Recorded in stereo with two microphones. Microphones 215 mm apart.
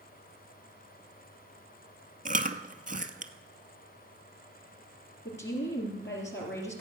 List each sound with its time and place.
2.2 s chewing: 40° right (ahead or behind), 0.7 m
5.2 s a woman speaking: 60° left (ahead or behind), 3.5 m